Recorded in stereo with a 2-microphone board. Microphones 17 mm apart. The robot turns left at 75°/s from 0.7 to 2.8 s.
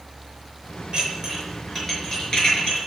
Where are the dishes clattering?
65° right (ahead or behind), 5 m; by 2.8 s 70° left (ahead or behind), 5 m.